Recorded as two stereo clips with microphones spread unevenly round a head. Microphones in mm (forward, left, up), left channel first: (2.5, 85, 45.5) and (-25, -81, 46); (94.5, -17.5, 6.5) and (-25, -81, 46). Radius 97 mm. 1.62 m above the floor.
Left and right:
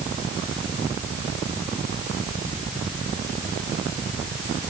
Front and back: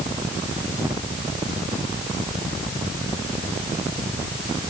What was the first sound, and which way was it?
Only background noise.